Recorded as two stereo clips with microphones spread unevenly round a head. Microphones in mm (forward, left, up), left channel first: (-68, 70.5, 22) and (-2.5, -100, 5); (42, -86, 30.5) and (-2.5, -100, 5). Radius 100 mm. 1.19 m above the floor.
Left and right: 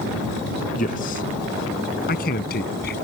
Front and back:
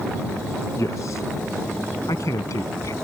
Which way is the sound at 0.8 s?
60° left.